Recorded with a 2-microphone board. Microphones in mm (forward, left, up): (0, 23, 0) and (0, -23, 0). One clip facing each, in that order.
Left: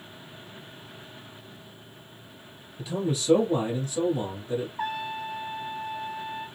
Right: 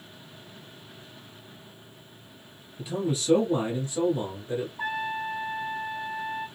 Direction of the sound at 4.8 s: 55° left (ahead or behind).